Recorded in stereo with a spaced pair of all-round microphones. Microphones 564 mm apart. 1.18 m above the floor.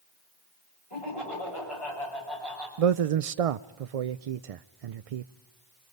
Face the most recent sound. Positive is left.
turn(degrees=-80)